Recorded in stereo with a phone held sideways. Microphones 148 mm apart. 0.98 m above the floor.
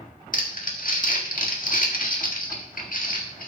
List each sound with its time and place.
0.3 s crumpling: 70° left (ahead or behind), 1.6 m